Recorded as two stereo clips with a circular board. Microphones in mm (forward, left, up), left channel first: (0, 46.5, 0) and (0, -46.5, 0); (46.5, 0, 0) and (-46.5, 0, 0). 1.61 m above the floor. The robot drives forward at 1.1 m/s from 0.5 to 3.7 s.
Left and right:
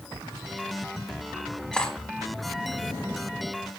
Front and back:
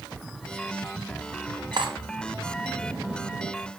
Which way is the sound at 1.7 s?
170° left.